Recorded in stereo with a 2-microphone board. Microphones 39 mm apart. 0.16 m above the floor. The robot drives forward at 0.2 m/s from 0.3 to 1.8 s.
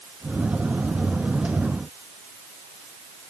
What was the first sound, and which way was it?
Only background noise.